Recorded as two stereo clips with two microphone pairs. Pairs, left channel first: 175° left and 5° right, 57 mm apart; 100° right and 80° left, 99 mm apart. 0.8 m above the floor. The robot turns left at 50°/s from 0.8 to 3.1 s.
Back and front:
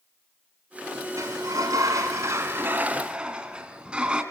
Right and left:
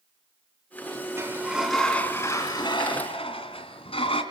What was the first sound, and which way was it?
A sliding door, 20° left.